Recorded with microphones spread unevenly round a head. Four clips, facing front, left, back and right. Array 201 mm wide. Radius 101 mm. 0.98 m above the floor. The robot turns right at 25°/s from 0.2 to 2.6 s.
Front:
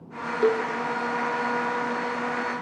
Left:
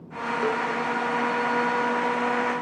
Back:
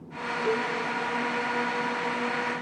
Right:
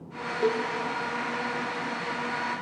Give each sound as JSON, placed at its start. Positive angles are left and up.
{"t": 0.4, "sound": "a cowbell", "azimuth_deg": -5, "distance_m": 2.5}